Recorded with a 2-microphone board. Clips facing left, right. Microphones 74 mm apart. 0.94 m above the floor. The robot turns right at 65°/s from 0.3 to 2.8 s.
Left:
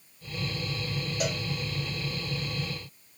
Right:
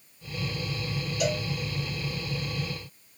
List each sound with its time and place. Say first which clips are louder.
1.2 s a cowbell: right 5 dB; 45° left (ahead or behind), 1.2 m; by 1.4 s 65° left (ahead or behind), 1.2 m